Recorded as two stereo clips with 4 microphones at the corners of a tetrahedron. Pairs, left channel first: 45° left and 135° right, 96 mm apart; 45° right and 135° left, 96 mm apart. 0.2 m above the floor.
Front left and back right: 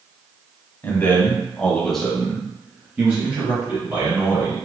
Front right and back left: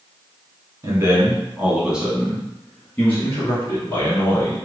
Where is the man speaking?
100° left, 1.3 m; by 4.6 s 85° right, 1.8 m.